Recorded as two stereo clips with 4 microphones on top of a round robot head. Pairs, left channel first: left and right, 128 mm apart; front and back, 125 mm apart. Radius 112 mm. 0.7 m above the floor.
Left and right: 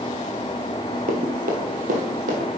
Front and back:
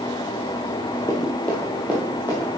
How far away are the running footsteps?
About 1.0 m.